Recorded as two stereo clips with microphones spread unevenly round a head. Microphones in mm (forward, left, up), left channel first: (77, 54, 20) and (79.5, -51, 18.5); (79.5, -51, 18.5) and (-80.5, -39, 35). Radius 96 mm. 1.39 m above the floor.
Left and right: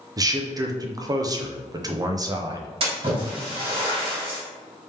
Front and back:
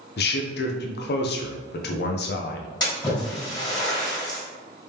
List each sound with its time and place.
0.2 s a man speaking: 30° right, 0.6 m
2.8 s a splash: 70° right, 2.0 m